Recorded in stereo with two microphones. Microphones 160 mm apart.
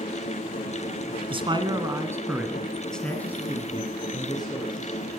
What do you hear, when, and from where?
1.3 s a man speaking: 30° right (ahead or behind), 1.6 m; by 5.1 s 30° left (ahead or behind), 3 m